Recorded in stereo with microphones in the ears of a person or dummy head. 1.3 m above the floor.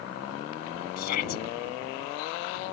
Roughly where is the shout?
Left.